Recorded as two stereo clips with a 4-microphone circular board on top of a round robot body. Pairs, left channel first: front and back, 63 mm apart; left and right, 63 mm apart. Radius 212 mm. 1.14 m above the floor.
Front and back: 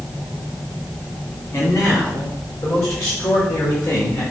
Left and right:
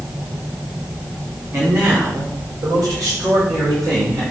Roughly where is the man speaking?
Ahead right.